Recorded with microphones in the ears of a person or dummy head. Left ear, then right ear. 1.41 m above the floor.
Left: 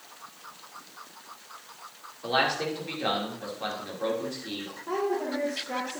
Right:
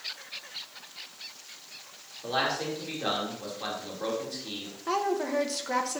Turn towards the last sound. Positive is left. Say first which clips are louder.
# right 1 dB
turn(degrees=-70)  # may be behind; listen again after turning